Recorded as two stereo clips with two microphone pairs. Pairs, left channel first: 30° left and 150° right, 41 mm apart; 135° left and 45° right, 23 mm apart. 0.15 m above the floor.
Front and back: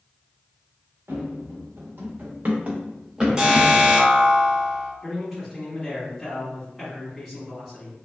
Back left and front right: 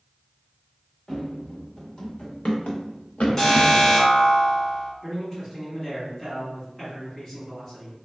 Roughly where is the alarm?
Behind.